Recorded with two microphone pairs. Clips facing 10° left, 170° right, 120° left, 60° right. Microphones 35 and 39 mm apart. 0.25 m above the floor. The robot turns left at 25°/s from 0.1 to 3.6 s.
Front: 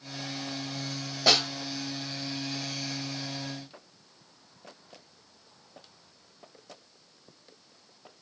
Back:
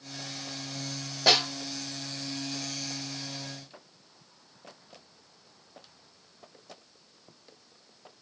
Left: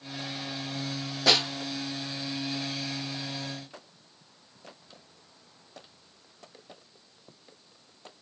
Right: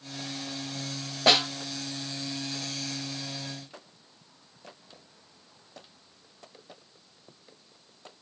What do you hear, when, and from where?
1.3 s a snare drum: 85° right, 1.5 m; by 1.5 s 95° right, 1.5 m